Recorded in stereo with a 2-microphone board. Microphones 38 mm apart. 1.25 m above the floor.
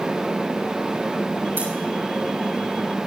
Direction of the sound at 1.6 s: 70° right (ahead or behind).